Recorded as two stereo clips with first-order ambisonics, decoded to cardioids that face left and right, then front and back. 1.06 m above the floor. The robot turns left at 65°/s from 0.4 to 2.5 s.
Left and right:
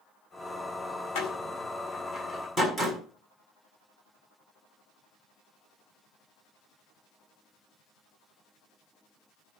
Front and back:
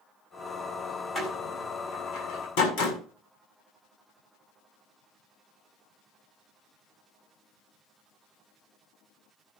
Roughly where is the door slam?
Left.